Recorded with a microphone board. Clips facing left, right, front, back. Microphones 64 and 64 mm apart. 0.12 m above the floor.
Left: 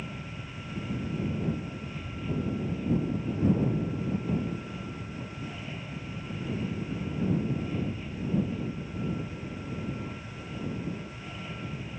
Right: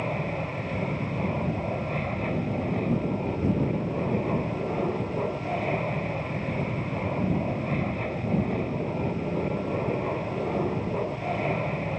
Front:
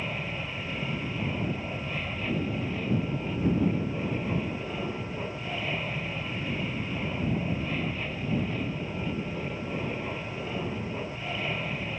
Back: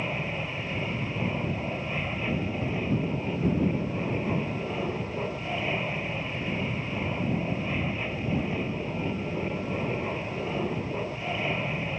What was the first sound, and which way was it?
An aircraft, 105° right.